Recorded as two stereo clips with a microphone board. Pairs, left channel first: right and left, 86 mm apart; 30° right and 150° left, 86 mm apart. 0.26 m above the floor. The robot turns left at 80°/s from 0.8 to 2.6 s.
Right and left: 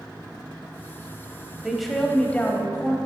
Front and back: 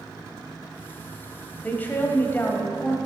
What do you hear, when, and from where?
1.6 s a woman speaking: 15° left, 1.1 m; by 3.0 s 60° right, 1.1 m